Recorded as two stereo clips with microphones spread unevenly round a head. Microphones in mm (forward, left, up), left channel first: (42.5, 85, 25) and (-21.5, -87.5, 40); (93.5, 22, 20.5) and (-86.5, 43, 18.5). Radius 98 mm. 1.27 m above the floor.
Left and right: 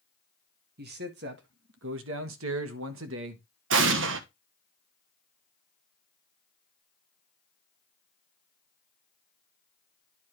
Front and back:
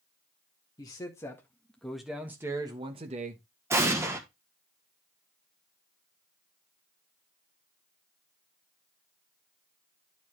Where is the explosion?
110° right, 1.1 m.